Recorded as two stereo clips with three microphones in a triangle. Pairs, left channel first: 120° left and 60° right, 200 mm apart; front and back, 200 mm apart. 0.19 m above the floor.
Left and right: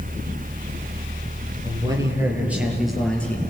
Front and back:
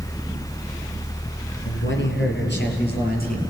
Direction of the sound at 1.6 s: 10° left.